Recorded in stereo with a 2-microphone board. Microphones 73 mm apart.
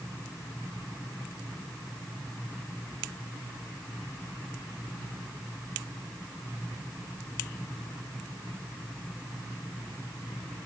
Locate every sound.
Only background noise.